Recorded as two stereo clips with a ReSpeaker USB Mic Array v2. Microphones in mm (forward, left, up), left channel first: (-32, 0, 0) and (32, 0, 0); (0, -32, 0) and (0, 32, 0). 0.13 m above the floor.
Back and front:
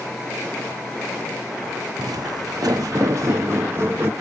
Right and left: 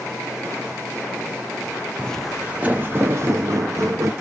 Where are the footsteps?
20° right, 0.6 m; by 4.1 s 55° left, 1.6 m.